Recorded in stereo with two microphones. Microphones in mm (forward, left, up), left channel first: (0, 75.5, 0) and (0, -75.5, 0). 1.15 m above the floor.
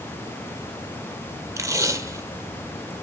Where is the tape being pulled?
20° right (ahead or behind), 1.4 m.